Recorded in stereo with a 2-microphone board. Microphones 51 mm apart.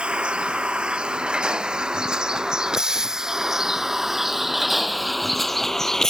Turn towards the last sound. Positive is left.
turn(degrees=10)  # may be behind; listen again after turning